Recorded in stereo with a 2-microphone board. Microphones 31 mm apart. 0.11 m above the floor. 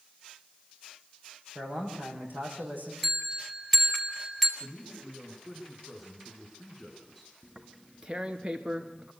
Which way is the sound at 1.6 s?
75° right (ahead or behind).